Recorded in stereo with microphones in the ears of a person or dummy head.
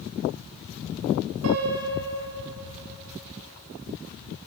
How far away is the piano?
About 3.5 m.